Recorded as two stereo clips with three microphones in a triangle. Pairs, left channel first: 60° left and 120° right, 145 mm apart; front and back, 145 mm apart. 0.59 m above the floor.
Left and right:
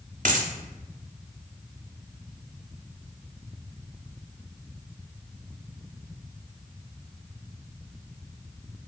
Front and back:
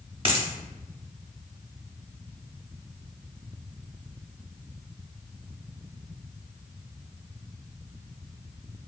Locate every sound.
0.2 s a dropped coin: 135° right, 0.6 m